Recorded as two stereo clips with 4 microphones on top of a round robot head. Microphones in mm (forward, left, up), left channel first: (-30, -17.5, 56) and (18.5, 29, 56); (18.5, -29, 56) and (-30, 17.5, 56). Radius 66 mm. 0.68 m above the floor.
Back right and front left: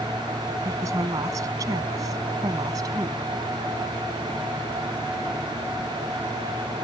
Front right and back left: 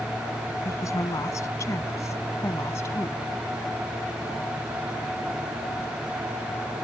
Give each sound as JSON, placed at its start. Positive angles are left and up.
{"t": 0.7, "sound": "a woman speaking", "azimuth_deg": 0}